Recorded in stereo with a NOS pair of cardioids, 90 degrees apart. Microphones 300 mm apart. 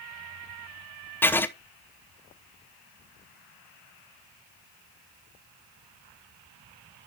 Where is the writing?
5° left, 0.8 m.